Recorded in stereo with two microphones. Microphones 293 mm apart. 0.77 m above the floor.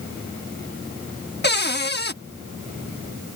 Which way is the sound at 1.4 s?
35° left (ahead or behind).